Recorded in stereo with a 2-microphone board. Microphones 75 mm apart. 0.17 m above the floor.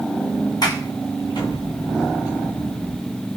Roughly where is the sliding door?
Left.